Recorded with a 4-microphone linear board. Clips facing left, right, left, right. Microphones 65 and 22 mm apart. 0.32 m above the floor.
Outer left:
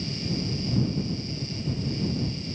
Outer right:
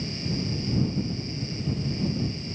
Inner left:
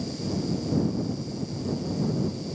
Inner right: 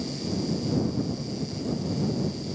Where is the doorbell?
I don't hear a doorbell.